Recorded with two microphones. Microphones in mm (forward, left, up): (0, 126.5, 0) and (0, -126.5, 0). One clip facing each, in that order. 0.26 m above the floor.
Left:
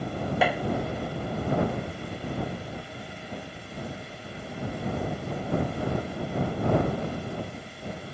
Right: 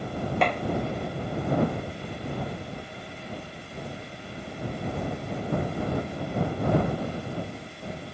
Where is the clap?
5° left (ahead or behind).